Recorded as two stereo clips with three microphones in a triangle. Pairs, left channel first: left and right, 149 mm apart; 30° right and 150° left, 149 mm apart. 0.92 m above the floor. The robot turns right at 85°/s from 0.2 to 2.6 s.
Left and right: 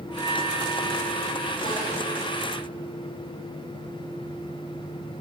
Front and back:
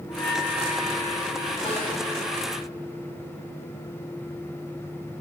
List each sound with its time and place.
0.1 s a bell: 25° left, 1.0 m; by 1.6 s 140° left, 1.0 m
1.6 s a snare drum: 80° right, 5 m; by 1.9 s 60° right, 5 m